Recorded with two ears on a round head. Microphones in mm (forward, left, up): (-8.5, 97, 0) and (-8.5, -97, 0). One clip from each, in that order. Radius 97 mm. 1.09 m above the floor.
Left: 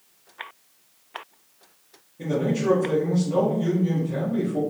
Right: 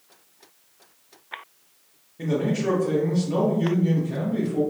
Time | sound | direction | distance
2.2 | a man speaking | 40° right (ahead or behind) | 1.2 m